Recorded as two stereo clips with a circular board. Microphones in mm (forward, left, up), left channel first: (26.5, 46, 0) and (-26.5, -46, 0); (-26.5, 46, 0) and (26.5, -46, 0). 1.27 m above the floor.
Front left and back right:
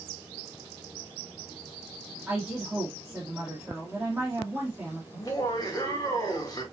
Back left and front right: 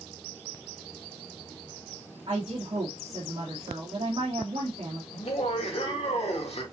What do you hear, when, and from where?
2.3 s a woman speaking: 40° right, 1.6 m
5.1 s laughter: 115° left, 2 m